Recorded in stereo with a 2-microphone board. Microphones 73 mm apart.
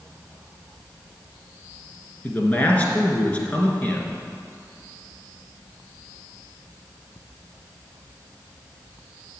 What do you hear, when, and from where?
2.2 s a man speaking: 20° left (ahead or behind), 2 m